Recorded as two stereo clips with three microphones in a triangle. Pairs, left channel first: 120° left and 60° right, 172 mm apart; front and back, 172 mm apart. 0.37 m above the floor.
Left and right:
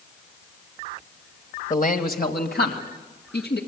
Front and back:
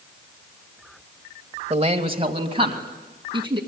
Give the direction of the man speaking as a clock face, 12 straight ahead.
7 o'clock.